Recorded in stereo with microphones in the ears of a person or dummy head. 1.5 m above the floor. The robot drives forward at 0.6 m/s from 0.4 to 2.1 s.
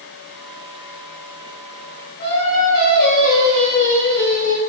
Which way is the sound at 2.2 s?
45° left (ahead or behind).